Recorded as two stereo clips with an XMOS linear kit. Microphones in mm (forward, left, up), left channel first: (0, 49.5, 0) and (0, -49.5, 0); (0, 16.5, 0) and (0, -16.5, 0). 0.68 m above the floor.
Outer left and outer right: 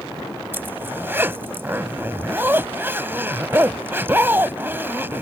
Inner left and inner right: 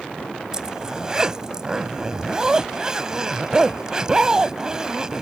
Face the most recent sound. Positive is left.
turn(degrees=-20)  # may be behind; listen again after turning